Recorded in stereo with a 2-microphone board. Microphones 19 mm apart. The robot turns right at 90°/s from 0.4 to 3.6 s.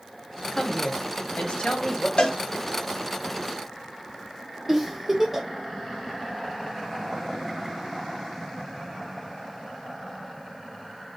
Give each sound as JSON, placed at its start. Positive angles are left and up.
{"t": 0.5, "sound": "a woman speaking", "azimuth_deg": 25, "distance_m": 0.7}
{"t": 2.2, "sound": "a cowbell", "side_deg": 60, "distance_m": 0.6}
{"t": 4.7, "sound": "a giggle", "side_deg": -15, "distance_m": 0.8}